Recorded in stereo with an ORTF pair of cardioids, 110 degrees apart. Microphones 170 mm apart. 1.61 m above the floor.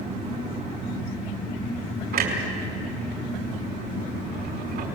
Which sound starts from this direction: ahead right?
A clunk, at 2.1 s.